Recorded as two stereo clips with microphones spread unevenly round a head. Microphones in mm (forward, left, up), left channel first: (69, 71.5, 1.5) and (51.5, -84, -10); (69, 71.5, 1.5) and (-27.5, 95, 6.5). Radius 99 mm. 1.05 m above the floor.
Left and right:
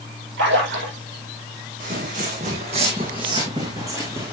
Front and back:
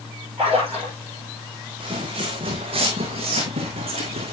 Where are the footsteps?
145° right, 2.5 m; by 4.3 s straight behind, 2.5 m.